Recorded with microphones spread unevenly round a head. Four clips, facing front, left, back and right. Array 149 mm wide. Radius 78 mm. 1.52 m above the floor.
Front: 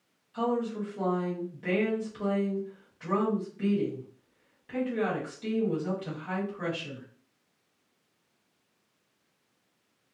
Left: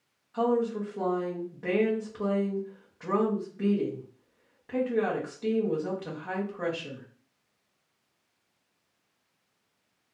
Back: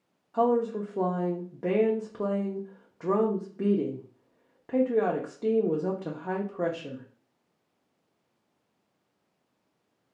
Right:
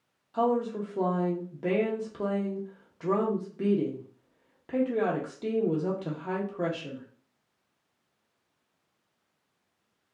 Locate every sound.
0.3 s a woman speaking: 155° right, 0.9 m